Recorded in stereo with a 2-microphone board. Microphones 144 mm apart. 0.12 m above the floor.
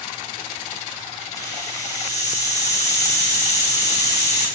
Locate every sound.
1.4 s a hiss: 55° left (ahead or behind), 4 m